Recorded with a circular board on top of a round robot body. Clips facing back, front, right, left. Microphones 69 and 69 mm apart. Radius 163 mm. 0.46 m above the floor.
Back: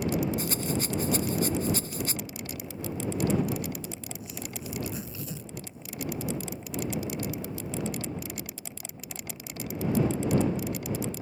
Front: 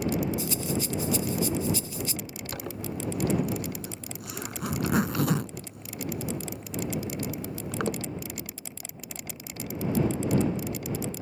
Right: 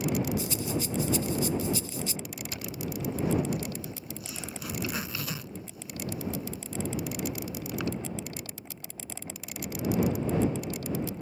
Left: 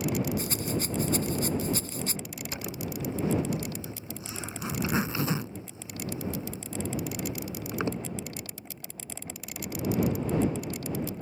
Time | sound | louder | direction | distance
0.4 | a rattle | even, even | 135° left | ?
2.5 | a zipper | front 2 dB, left 1 dB | 25° left | ?